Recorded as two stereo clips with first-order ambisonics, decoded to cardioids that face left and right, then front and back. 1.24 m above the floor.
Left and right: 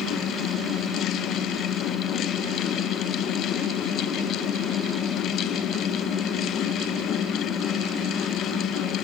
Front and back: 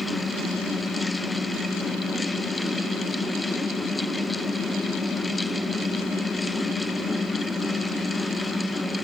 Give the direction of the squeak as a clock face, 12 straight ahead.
I don't hear a squeak.